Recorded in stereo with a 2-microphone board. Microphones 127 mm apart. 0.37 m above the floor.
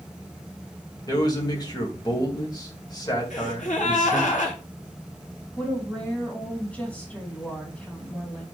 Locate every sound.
1.1 s a man speaking: 30° left (ahead or behind), 2 m
3.3 s a gasp: 85° left, 2.5 m
5.6 s a woman speaking: 10° left (ahead or behind), 3 m